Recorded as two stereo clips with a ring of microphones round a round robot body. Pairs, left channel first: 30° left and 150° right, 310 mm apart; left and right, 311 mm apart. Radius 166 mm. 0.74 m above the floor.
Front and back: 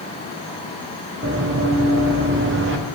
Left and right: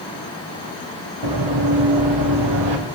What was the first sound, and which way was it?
Running footsteps, 95° right.